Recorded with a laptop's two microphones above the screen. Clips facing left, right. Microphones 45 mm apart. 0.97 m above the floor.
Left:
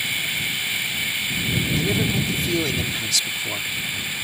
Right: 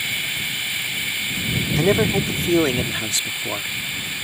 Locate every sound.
1.8 s a man speaking: 55° right (ahead or behind); by 3.7 s 20° right (ahead or behind)